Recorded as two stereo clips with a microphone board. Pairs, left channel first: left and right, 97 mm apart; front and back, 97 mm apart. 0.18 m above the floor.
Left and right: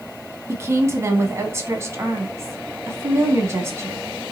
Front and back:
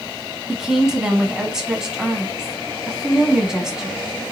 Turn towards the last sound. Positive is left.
turn(degrees=-105)